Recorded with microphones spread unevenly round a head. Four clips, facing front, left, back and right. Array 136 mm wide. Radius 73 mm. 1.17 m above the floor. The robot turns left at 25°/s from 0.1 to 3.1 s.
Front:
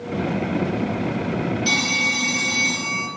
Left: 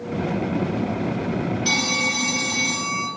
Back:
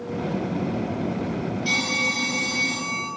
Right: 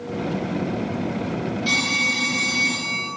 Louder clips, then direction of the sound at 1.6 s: Even, front 2 dB; 100° left.